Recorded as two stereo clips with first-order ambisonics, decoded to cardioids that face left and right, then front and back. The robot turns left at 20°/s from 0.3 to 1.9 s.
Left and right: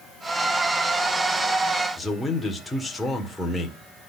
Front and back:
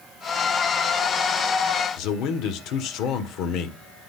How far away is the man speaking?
About 1.5 m.